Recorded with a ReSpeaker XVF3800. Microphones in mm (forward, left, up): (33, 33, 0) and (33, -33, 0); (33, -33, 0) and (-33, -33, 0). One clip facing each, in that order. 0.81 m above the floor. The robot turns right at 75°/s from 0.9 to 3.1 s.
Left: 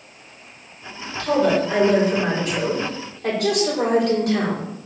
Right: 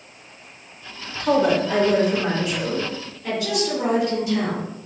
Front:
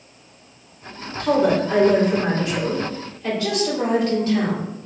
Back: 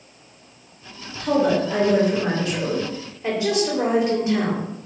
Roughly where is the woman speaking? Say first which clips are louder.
Even, front 1 dB; ahead right.